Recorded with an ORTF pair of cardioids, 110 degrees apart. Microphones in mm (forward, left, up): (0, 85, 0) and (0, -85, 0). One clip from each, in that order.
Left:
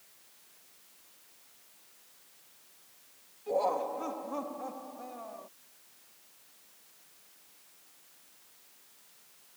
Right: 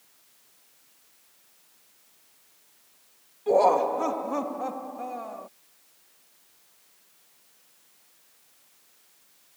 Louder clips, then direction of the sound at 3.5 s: Right 10 dB; 65° right.